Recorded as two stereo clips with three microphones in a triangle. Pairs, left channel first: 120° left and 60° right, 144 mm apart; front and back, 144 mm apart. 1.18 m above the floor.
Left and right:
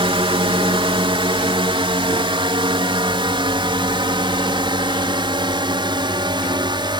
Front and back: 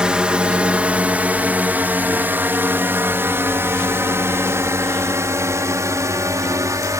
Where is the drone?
100° right; by 7.0 s 115° right.